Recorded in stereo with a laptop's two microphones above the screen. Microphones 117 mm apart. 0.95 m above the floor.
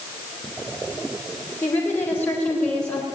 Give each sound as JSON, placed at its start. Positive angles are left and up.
{"t": 1.6, "sound": "a woman speaking", "side_deg": 20, "distance_m": 4.0}